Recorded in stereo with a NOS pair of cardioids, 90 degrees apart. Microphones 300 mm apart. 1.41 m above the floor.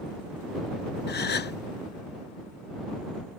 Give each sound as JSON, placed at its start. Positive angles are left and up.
{"t": 1.1, "sound": "a gasp", "azimuth_deg": 35}